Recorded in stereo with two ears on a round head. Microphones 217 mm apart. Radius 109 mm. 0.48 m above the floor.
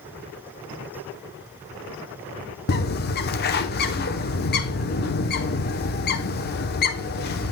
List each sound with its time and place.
2.7 s a bird: 40° left (ahead or behind), 0.9 m